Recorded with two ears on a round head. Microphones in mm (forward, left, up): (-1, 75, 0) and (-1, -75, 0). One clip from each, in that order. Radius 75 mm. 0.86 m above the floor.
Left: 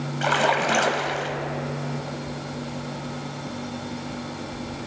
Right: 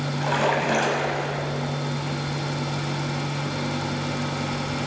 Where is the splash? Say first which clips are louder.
Left 2 dB; 30° left (ahead or behind), 1.1 m.